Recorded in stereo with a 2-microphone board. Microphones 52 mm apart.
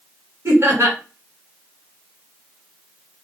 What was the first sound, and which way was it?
Laughter, 60° right (ahead or behind).